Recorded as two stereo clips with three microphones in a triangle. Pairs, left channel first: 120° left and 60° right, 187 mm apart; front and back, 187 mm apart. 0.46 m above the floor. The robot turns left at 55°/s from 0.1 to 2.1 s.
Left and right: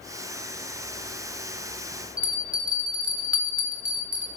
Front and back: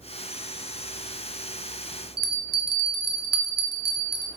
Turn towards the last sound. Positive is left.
turn(degrees=-145)